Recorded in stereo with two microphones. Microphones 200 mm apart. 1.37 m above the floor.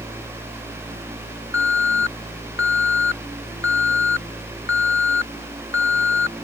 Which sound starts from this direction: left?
An alarm, at 1.5 s.